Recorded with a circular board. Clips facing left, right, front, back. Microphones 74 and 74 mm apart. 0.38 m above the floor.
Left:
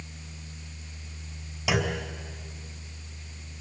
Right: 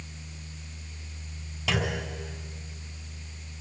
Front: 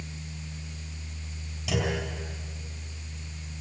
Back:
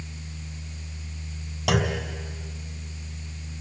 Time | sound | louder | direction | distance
1.7 | a clunk | left 2 dB, back 4 dB | 165° left | 2.5 m